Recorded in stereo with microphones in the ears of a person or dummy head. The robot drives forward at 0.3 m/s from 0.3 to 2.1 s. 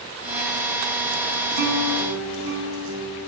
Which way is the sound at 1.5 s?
70° right (ahead or behind).